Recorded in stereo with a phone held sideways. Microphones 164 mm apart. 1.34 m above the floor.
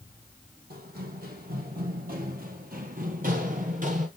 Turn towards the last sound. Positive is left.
turn(degrees=-55)  # may be behind; listen again after turning